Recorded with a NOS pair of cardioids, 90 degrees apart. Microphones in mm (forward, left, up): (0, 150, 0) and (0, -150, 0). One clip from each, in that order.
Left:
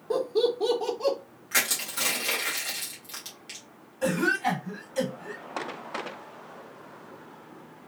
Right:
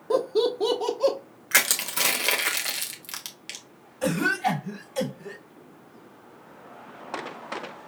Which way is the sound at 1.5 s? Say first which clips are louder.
Right 4 dB; 50° right.